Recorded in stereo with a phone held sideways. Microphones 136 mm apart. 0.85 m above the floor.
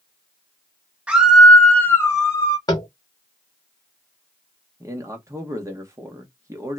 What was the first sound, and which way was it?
A scream, 10° right (ahead or behind).